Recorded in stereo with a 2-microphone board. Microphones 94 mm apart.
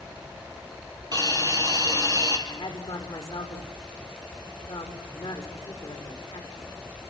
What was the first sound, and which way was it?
A hiss, 45° right (ahead or behind).